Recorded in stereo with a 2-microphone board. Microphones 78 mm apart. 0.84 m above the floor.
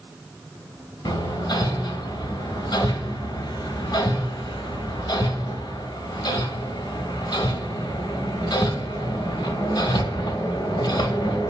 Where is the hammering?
75° left (ahead or behind), 1.7 m.